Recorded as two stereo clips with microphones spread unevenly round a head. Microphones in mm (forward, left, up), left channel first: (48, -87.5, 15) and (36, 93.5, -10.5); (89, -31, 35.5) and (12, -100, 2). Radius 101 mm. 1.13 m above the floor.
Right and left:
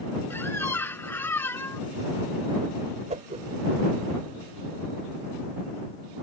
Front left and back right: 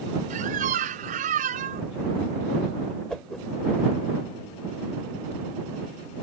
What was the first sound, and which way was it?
A squeak, 160° right.